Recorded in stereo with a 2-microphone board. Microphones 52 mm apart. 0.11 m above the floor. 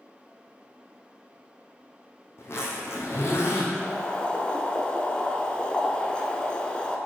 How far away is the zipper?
About 1.8 m.